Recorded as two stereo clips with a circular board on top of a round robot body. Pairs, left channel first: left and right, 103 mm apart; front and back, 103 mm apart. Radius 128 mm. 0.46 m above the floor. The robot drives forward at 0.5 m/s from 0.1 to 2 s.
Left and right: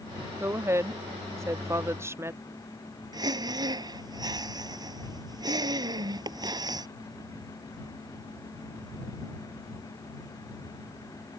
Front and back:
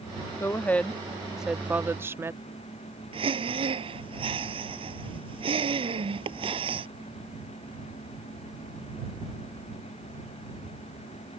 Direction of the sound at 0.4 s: 45° right.